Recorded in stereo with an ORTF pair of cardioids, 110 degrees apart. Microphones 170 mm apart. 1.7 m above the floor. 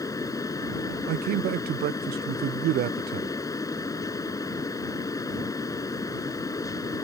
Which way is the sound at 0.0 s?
20° left.